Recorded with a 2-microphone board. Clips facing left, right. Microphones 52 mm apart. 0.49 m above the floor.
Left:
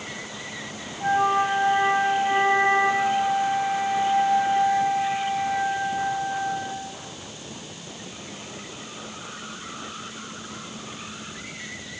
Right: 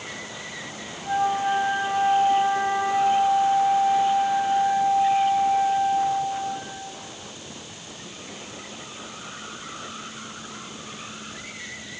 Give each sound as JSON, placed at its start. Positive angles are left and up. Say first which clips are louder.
{"t": 1.0, "sound": "a flute", "louder": "left 2 dB", "side_deg": 65, "distance_m": 7.0}